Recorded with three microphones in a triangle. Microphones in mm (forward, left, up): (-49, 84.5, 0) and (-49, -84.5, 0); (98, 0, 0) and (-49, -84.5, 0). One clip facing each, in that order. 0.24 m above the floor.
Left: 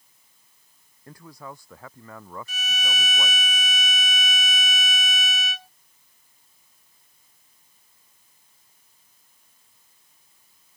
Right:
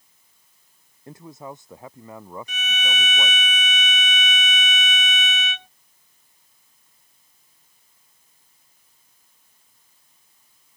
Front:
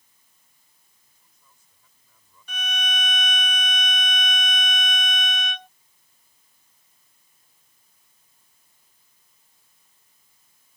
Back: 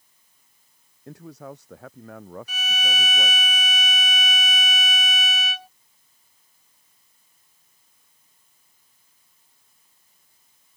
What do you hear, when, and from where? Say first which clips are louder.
1.1 s a man speaking: right 4 dB, back 31 dB; 160° right; by 3.4 s 165° right
2.5 s a violin: right 3 dB, front 3 dB; 65° right